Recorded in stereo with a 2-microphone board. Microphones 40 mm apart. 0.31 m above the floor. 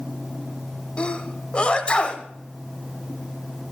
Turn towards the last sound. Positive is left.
turn(degrees=25)  # may be behind; listen again after turning